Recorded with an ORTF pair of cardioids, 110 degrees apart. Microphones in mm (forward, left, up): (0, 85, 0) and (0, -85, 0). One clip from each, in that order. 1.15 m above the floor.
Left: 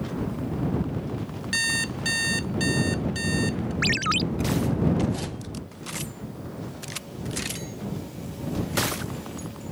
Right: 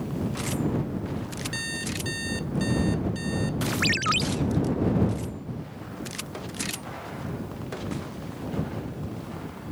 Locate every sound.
1.5 s an alarm clock: 45° left
3.8 s a ringtone: straight ahead